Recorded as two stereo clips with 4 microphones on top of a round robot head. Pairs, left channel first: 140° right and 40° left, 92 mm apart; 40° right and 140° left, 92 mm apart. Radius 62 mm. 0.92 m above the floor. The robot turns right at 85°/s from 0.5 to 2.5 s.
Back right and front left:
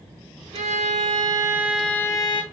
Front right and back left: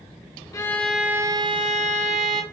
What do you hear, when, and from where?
0.5 s a violin: 20° left, 0.6 m; by 2.4 s straight behind, 0.6 m